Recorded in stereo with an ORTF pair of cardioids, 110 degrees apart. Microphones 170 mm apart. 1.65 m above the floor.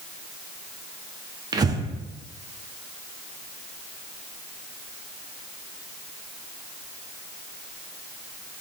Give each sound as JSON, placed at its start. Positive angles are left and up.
{"t": 1.5, "sound": "breathing", "azimuth_deg": -25, "distance_m": 0.6}